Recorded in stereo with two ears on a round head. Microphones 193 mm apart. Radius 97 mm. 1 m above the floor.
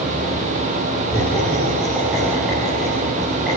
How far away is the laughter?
About 9 m.